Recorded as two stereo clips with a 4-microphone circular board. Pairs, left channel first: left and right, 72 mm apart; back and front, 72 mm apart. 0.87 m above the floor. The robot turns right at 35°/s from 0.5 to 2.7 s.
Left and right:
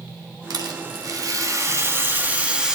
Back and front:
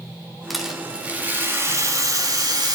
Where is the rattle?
90° right, 1.4 m; by 2.8 s 10° right, 1.4 m.